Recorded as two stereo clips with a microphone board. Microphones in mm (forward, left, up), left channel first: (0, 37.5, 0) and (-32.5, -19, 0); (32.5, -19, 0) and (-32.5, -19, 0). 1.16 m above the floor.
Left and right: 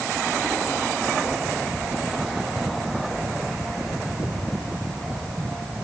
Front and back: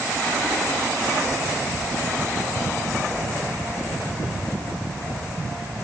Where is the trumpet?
No trumpet in this recording.